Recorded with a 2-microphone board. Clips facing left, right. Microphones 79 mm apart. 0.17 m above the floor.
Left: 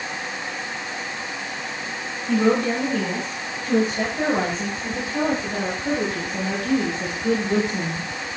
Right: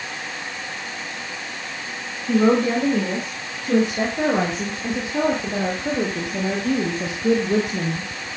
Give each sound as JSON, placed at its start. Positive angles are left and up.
{"t": 2.3, "sound": "a woman speaking", "side_deg": -20, "distance_m": 8.5}